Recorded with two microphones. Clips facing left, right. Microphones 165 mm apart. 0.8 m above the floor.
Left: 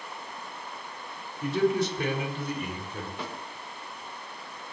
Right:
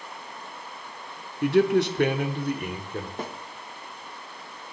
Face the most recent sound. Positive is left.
turn(degrees=-45)  # may be behind; listen again after turning